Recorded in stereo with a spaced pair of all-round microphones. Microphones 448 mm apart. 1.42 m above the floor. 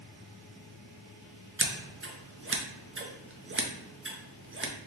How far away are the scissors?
About 0.5 m.